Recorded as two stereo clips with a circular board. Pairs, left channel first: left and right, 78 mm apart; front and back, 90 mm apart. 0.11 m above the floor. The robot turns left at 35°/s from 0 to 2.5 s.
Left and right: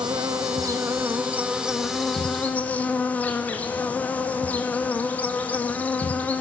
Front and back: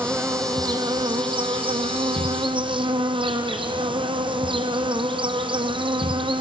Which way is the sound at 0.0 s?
110° right.